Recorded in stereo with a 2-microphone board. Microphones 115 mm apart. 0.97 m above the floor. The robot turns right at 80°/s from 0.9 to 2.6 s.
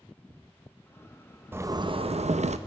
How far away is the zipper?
About 0.5 m.